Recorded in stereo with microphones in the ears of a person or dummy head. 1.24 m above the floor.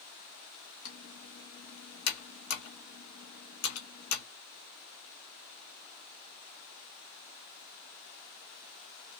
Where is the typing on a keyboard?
85° left, 1.4 m.